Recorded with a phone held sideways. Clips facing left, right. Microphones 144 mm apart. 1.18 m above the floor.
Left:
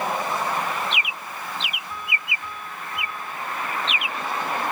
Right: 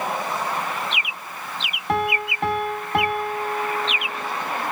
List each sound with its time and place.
1.9 s a piano: 75° right (ahead or behind)